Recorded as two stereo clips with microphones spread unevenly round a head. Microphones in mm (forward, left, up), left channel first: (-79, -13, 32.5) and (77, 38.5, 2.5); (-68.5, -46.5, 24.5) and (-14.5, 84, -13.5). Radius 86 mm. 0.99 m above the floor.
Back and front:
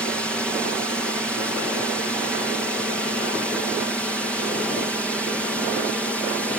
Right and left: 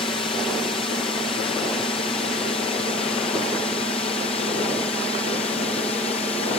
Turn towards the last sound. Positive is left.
turn(degrees=-70)